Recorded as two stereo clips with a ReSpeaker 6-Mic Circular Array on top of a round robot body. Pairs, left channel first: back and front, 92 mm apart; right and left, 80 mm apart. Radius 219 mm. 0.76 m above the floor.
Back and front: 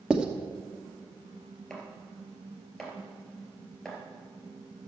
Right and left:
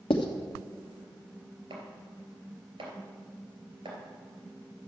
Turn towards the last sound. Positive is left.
turn(degrees=100)